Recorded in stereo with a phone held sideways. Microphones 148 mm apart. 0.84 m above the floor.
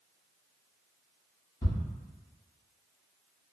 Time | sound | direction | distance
1.6 | ticking | 35° left (ahead or behind) | 1.3 m